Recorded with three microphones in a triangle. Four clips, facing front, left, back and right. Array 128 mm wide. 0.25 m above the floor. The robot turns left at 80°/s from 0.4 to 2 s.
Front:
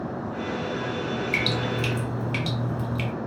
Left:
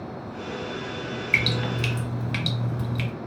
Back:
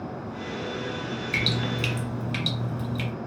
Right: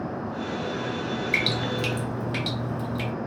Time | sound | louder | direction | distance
1.3 | dripping | even, front 2 dB | 135° left | 1.1 m